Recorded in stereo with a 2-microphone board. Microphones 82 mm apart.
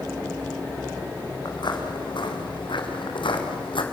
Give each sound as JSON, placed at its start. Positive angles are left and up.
{"t": 1.4, "sound": "footsteps", "side_deg": 65, "distance_m": 4.5}